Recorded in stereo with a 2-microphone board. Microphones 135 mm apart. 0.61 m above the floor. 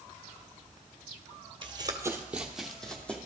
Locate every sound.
1.6 s running footsteps: 40° right (ahead or behind), 0.8 m; by 3.2 s 10° left (ahead or behind), 1.5 m